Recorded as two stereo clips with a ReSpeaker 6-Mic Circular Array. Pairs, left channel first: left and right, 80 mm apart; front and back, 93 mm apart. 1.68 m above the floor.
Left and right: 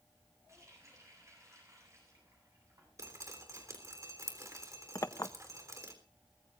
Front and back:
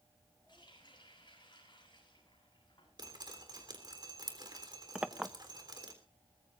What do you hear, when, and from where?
0.5 s a running tap: 35° right, 9 m
3.0 s dripping: 140° right, 3.5 m
5.0 s a clink: 105° left, 0.7 m